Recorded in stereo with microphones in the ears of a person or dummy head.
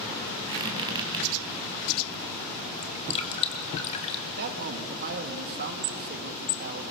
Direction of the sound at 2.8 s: 35° left (ahead or behind).